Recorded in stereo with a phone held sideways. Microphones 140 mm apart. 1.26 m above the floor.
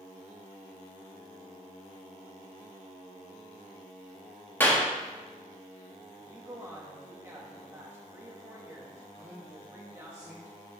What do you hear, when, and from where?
4.6 s a clap: 15° left (ahead or behind), 1.4 m
6.2 s a woman speaking: 20° right (ahead or behind), 2 m
9.2 s a man speaking: 10° right (ahead or behind), 3.5 m